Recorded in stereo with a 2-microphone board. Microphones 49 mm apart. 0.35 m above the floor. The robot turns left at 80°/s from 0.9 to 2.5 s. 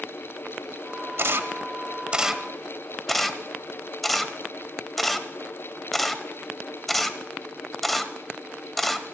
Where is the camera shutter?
55° right (ahead or behind), 0.8 m; by 9.1 s 5° left (ahead or behind), 0.8 m.